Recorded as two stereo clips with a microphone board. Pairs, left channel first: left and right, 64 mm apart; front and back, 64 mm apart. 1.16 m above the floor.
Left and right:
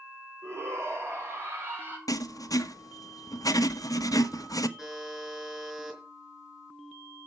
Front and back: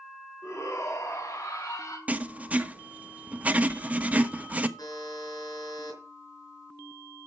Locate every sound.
0.4 s a shout: 45° right, 5.5 m; by 2.0 s 35° right, 5 m
2.1 s writing: 115° left, 0.7 m
4.8 s a buzzer: 5° right, 4.5 m